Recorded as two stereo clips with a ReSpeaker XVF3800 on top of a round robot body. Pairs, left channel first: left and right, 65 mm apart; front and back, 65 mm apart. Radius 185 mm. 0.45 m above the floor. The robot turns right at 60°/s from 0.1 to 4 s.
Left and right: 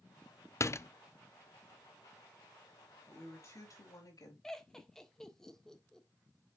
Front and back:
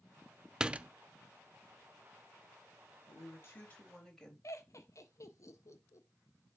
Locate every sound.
0.6 s a door slam: 105° left, 0.6 m; by 0.9 s 125° left, 0.6 m
3.1 s a woman speaking: 30° left, 4 m; by 4.3 s 85° left, 4 m
4.4 s laughter: 10° left, 1.9 m